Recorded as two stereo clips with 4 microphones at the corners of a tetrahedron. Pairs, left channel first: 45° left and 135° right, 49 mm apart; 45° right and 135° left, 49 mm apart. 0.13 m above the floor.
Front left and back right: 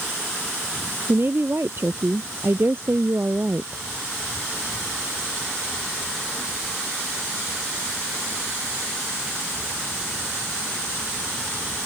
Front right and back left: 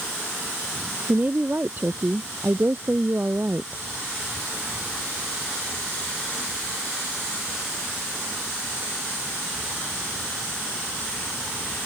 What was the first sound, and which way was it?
A woman speaking, 175° right.